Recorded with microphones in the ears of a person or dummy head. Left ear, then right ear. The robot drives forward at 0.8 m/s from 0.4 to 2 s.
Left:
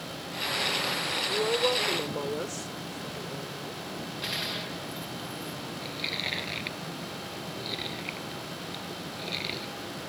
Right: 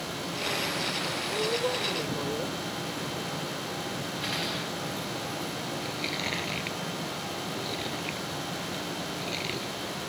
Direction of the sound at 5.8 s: 10° left (ahead or behind).